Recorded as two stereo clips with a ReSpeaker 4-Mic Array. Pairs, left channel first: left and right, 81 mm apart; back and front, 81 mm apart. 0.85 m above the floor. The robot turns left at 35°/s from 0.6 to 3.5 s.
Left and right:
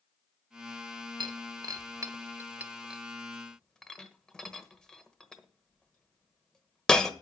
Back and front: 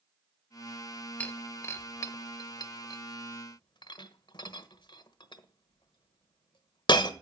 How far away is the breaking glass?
About 1.2 m.